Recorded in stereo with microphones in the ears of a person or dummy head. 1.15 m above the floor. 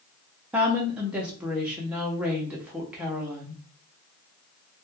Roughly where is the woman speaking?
Centre.